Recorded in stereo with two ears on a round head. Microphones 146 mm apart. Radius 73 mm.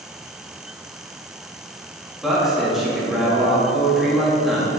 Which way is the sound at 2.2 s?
Centre (ahead or behind).